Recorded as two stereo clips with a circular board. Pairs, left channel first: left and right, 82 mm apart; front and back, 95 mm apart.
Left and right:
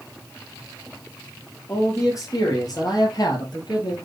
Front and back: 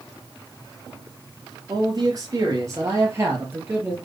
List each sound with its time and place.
1.7 s a man speaking: 140° left, 3.5 m; by 4.0 s 110° left, 3.5 m